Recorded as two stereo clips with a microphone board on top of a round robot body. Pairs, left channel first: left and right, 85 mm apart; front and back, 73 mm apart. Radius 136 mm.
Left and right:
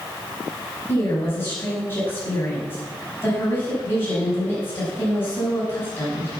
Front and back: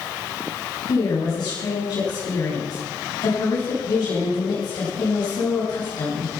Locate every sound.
0.9 s a woman speaking: 25° left, 7 m